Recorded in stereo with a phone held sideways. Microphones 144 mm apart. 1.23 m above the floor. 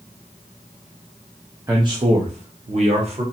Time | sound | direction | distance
1.7 | a man speaking | 25° right (ahead or behind) | 0.6 m